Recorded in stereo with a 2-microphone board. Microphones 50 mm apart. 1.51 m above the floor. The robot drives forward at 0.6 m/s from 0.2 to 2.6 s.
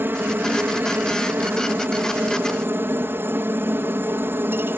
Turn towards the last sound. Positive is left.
turn(degrees=-50)  # may be behind; listen again after turning